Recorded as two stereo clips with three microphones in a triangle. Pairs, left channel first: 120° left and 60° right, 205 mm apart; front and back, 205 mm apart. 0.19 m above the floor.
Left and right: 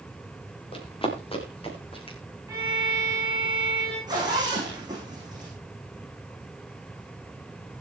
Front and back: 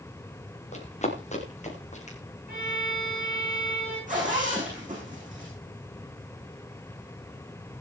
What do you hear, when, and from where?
0.7 s running footsteps: 55° left, 4.5 m
2.5 s a violin: 135° right, 10 m
4.1 s a zipper: 130° right, 8 m